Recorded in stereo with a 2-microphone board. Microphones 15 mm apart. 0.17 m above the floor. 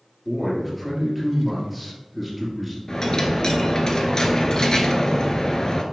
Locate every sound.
0.2 s a man speaking: 5° left (ahead or behind), 3 m
2.9 s a dropped coin: 45° left (ahead or behind), 1.1 m